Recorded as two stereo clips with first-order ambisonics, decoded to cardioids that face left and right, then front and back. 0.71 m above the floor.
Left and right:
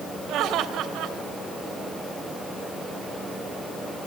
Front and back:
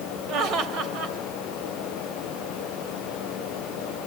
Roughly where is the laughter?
Behind right.